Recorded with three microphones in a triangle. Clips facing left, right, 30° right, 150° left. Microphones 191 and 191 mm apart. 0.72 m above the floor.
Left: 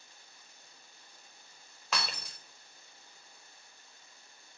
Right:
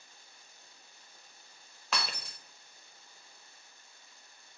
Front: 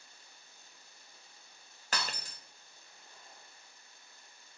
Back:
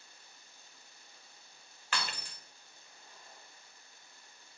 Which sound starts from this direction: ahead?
Breaking glass, at 1.9 s.